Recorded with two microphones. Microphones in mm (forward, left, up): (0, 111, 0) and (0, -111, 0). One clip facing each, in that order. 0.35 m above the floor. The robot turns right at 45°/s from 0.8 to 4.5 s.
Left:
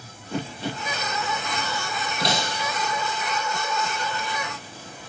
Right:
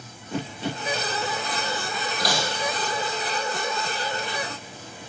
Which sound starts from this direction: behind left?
Breaking glass, at 2.2 s.